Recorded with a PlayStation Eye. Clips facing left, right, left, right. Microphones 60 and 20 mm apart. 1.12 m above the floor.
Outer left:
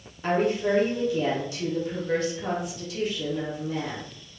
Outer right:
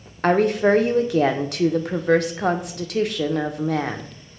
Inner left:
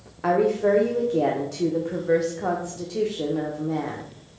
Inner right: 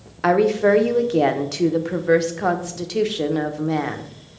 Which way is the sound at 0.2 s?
80° right.